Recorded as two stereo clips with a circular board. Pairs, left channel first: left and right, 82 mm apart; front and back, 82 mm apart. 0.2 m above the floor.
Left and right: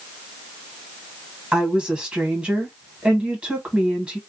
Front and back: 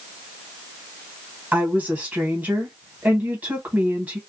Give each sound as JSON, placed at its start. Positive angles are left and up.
{"t": 1.5, "sound": "a woman speaking", "azimuth_deg": -150, "distance_m": 1.4}